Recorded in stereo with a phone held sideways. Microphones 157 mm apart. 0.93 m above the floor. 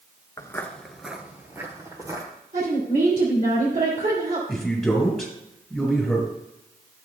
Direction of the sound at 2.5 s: 65° right (ahead or behind).